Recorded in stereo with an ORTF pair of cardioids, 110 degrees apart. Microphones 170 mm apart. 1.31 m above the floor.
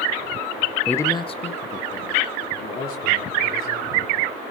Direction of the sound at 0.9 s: 5° left.